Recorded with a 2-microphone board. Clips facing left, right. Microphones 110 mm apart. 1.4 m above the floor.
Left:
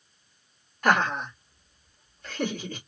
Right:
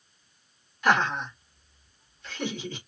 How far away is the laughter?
About 1.6 m.